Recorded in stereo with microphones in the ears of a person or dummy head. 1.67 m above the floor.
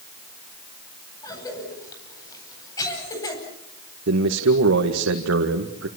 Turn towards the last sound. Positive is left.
turn(degrees=-85)